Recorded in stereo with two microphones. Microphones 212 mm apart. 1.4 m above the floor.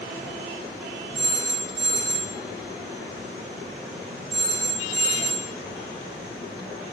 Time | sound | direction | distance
1.1 | a phone ringing | 50° right (ahead or behind) | 1.7 m